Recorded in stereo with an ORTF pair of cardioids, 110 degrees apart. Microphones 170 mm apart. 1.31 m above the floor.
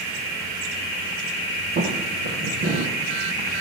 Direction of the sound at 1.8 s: 60° right.